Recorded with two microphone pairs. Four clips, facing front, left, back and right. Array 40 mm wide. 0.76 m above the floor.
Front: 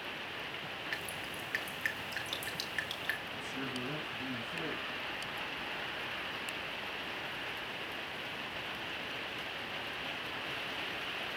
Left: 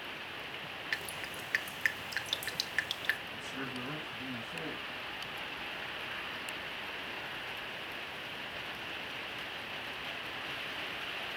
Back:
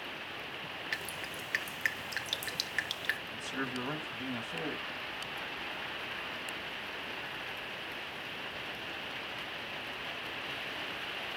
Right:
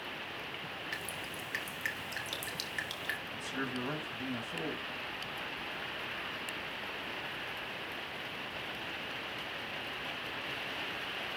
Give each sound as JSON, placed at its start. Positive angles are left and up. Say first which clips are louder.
{"t": 0.9, "sound": "dripping", "louder": "left 2 dB, back 3 dB", "azimuth_deg": 110, "distance_m": 1.2}
{"t": 3.3, "sound": "a man speaking", "louder": "right 2 dB, back 2 dB", "azimuth_deg": -145, "distance_m": 4.5}